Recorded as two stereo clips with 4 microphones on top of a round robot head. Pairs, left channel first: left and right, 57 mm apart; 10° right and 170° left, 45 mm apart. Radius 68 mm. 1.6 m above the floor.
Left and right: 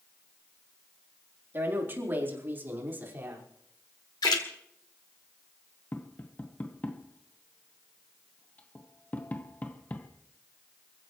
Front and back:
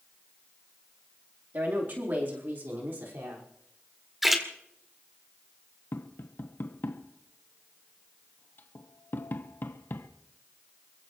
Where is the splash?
85° left, 1.9 m.